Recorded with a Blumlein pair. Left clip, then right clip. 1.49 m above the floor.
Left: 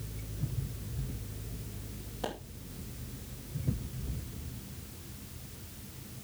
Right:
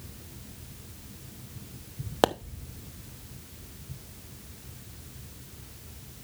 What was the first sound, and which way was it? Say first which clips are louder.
A pop: right 14 dB; 40° right.